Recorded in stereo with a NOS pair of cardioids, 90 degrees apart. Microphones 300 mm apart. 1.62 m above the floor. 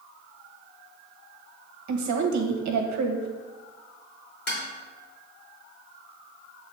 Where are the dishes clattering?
35° left, 3 m.